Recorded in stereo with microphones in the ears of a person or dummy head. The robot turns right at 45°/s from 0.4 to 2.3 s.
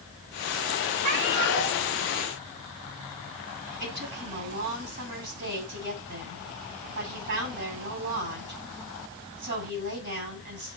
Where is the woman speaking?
55° right (ahead or behind), 10 m.